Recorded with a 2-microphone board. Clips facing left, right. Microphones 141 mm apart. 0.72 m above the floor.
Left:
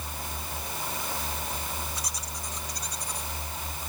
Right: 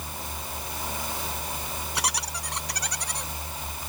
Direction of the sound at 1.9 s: 75° right (ahead or behind).